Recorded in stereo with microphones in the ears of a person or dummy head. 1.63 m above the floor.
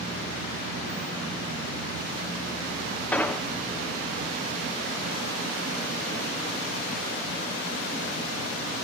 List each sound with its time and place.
3.1 s an explosion: 10° left (ahead or behind), 1.3 m